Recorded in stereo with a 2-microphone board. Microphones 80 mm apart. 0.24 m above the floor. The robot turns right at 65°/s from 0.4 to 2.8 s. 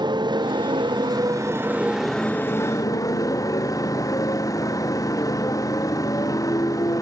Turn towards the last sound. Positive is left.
turn(degrees=50)